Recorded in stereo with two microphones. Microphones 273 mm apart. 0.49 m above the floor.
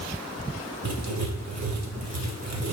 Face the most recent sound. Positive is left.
turn(degrees=-75)  # may be behind; listen again after turning